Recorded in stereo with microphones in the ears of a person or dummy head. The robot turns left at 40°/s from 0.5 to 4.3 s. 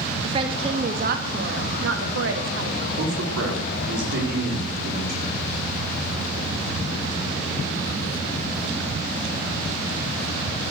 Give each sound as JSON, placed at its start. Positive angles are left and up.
{"t": 0.2, "sound": "a woman speaking", "azimuth_deg": -35, "distance_m": 2.0}
{"t": 3.0, "sound": "a man speaking", "azimuth_deg": -75, "distance_m": 4.0}